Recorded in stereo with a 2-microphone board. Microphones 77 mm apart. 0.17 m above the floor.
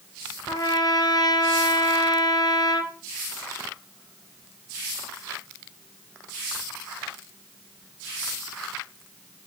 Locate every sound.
0.5 s a trumpet: 55° left (ahead or behind), 1.4 m